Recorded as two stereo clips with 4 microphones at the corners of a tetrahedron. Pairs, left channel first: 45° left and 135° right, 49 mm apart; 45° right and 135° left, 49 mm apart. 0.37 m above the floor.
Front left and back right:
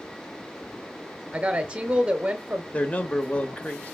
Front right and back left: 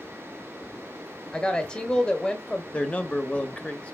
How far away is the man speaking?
About 1.2 m.